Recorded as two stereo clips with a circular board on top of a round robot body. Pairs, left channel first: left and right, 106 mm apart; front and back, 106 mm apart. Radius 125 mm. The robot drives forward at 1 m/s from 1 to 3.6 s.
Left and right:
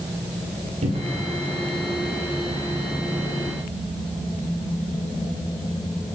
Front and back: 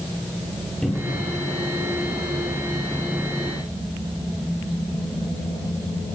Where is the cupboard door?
85° right, 3 m; by 1.3 s 90° right, 3 m.